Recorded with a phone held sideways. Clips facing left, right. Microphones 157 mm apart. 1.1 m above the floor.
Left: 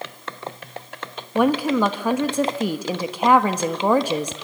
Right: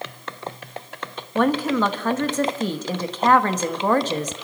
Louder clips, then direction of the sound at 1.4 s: Left 1 dB; 10° left (ahead or behind).